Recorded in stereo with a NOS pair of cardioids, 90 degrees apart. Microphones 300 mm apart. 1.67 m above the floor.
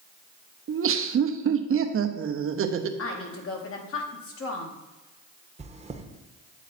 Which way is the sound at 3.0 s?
50° left.